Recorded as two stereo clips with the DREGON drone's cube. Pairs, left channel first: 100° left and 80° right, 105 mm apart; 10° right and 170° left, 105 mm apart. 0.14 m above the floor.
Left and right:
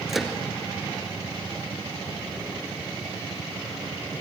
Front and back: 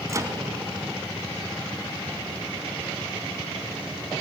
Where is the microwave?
165° right, 1.6 m.